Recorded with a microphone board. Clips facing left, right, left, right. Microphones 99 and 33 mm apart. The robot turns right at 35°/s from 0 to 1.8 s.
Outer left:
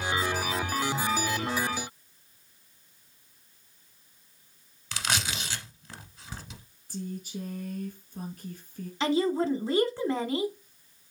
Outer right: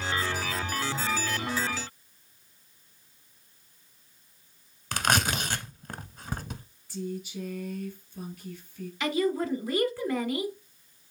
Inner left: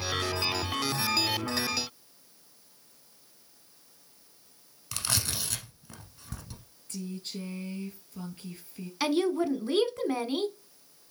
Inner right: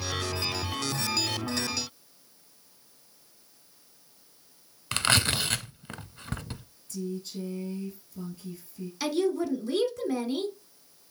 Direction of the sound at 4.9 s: 50° right (ahead or behind).